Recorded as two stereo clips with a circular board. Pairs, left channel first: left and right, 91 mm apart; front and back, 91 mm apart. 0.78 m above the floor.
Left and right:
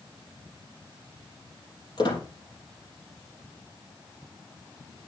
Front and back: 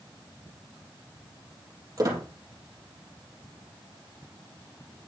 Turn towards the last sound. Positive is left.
turn(degrees=125)